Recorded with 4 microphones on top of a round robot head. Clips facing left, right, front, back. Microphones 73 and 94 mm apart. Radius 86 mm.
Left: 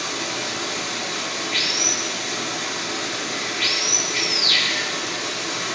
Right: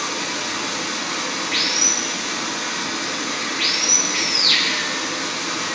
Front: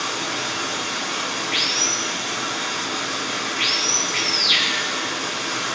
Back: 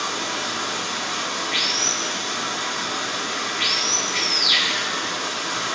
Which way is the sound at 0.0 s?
110° right.